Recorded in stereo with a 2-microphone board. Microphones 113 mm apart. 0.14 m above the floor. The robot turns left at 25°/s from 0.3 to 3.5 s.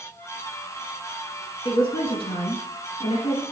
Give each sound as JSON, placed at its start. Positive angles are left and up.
{"t": 1.6, "sound": "a woman speaking", "azimuth_deg": 120, "distance_m": 2.0}